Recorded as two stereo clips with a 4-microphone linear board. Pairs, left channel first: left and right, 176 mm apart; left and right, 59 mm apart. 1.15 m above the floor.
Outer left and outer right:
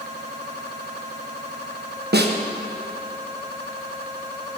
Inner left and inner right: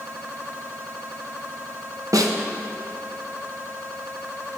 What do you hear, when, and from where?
2.1 s a snare drum: 70° right (ahead or behind), 1.1 m